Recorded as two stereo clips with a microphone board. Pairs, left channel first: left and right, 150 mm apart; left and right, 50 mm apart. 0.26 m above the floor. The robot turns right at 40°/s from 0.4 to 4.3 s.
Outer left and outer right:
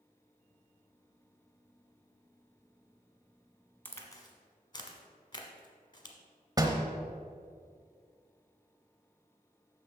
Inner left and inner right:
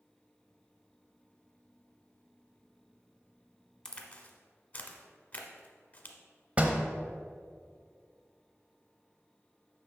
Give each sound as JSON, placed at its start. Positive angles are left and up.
{"t": 3.9, "sound": "a crack", "side_deg": 15, "distance_m": 1.0}
{"t": 6.6, "sound": "a door slam", "side_deg": -25, "distance_m": 0.8}